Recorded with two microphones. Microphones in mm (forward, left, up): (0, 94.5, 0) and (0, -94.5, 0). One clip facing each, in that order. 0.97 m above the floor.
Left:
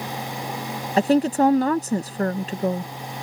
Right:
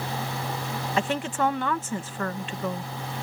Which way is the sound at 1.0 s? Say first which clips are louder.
Left 10 dB; 40° left (ahead or behind).